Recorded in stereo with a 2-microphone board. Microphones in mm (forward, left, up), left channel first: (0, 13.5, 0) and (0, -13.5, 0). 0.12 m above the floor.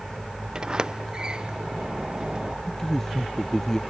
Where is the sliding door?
30° right (ahead or behind).